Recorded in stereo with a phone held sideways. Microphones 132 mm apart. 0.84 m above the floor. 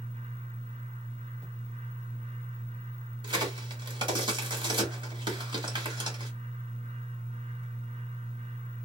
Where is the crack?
40° right (ahead or behind), 1.5 m.